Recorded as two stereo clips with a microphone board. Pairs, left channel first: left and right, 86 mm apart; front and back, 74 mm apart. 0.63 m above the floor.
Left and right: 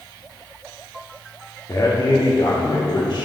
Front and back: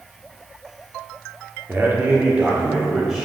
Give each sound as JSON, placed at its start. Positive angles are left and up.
{"t": 1.7, "sound": "a man speaking", "azimuth_deg": 125, "distance_m": 1.6}